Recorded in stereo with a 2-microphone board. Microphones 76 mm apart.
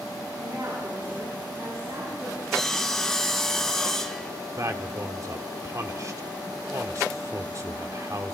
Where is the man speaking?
45° right (ahead or behind), 1.6 m.